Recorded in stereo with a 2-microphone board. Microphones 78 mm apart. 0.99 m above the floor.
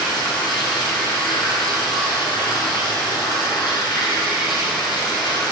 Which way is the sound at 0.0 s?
70° left (ahead or behind).